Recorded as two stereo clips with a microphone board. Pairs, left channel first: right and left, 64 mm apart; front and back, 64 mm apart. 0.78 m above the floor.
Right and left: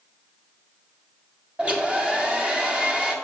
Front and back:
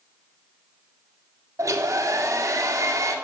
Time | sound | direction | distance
1.6 | a hair dryer | 160° left | 1.7 m